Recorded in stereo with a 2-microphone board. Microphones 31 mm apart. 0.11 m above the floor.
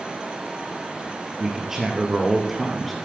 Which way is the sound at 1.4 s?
20° right (ahead or behind).